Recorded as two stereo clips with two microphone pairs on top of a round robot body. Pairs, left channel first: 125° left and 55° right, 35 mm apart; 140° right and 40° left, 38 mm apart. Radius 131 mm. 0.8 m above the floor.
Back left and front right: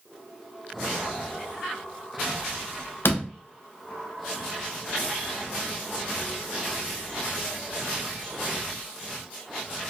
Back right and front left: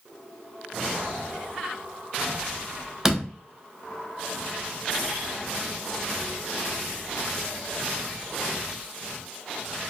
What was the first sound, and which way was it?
A door slam, 115° left.